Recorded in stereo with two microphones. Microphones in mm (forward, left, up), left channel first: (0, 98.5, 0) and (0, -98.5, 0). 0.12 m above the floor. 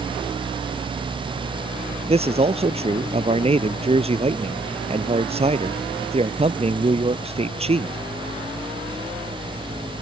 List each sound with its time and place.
2.1 s a man speaking: 30° right (ahead or behind)